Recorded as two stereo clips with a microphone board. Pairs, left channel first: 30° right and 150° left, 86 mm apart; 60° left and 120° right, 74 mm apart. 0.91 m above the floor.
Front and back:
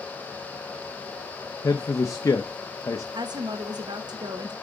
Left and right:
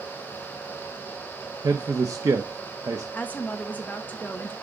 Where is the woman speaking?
125° left, 1.0 m.